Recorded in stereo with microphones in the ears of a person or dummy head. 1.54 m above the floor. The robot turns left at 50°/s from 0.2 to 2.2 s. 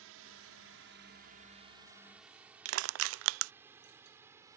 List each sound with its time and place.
0.0 s a drone: 70° right (ahead or behind); by 4.6 s 15° right (ahead or behind)
2.6 s crushing: 75° right (ahead or behind)